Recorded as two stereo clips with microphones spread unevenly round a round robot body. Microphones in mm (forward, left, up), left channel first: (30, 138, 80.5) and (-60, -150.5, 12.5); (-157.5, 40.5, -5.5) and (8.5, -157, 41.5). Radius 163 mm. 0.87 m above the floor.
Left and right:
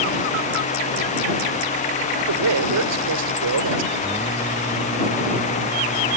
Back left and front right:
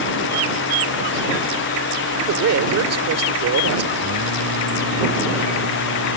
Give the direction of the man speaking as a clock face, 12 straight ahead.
2 o'clock.